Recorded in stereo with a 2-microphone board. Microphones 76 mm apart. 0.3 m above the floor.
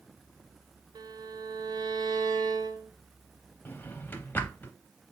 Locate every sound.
0.9 s a violin: 75° right (ahead or behind), 0.5 m
3.6 s a drawer: 30° left (ahead or behind), 0.5 m